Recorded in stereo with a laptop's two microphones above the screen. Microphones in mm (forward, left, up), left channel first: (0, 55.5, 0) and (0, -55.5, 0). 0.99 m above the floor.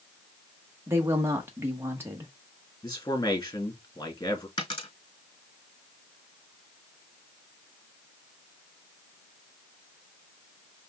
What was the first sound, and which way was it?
A woman speaking, 20° right (ahead or behind).